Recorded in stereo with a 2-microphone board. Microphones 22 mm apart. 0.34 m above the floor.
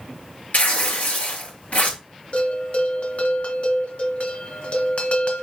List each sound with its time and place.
0.5 s tearing paper: 75° left (ahead or behind), 5 m
2.3 s a bell: 55° left (ahead or behind), 1.7 m